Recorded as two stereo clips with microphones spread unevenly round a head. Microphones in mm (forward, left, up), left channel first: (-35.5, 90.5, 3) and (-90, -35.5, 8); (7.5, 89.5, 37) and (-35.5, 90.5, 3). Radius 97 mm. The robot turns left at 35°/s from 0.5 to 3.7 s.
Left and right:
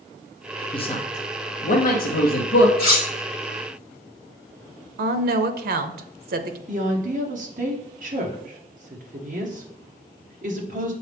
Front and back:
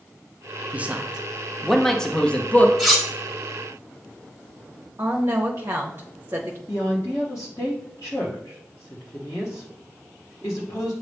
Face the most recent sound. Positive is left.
turn(degrees=-60)